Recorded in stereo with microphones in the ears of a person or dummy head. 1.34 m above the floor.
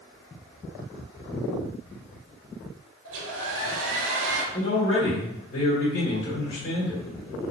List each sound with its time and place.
3.0 s a hair dryer: 70° right (ahead or behind), 0.7 m
4.5 s a man speaking: 40° left (ahead or behind), 1.7 m